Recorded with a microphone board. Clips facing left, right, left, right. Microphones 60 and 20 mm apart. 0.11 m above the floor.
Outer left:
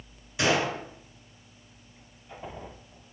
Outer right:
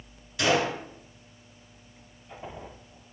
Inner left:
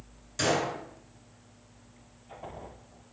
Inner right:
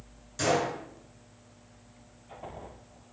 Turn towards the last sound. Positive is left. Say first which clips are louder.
# outer right 1 dB, even
turn(degrees=20)  # may be behind; listen again after turning